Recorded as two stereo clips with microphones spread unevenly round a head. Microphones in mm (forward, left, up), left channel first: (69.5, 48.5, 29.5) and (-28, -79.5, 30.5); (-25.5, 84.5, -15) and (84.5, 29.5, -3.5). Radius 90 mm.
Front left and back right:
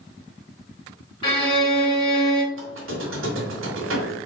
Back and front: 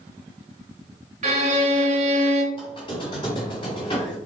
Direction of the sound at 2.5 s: 145° right.